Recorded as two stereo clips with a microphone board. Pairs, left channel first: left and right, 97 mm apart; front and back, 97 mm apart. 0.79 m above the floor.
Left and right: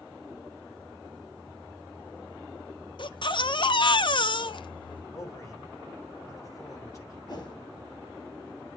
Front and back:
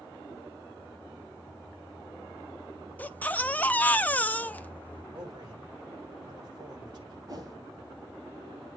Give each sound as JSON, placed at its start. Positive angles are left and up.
{"t": 3.0, "sound": "a baby crying", "azimuth_deg": 70, "distance_m": 0.5}
{"t": 5.1, "sound": "a man speaking", "azimuth_deg": 145, "distance_m": 3.5}
{"t": 7.3, "sound": "a whoosh", "azimuth_deg": 135, "distance_m": 3.0}